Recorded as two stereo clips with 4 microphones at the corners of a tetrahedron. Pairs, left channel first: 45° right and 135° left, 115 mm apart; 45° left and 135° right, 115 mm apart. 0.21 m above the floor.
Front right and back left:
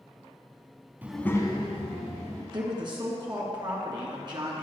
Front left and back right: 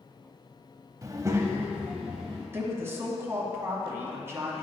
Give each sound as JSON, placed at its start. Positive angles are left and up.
{"t": 1.0, "sound": "a child speaking", "azimuth_deg": -170, "distance_m": 0.6}
{"t": 2.5, "sound": "a woman speaking", "azimuth_deg": 165, "distance_m": 1.5}